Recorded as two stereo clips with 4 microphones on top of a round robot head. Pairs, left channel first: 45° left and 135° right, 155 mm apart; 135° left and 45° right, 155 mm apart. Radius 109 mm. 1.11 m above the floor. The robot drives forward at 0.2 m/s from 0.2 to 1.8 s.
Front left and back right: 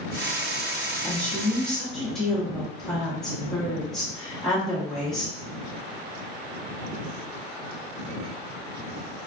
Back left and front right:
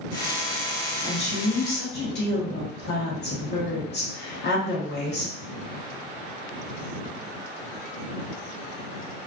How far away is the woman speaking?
About 0.9 m.